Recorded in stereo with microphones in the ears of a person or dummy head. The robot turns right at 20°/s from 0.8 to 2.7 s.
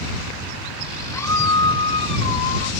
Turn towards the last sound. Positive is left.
turn(degrees=45)